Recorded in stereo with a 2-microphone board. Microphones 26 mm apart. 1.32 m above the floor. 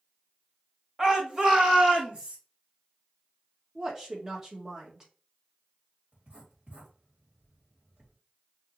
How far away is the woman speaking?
About 1.4 m.